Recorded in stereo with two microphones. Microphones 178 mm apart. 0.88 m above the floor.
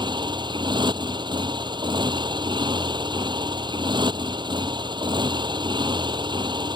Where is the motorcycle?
25° right (ahead or behind).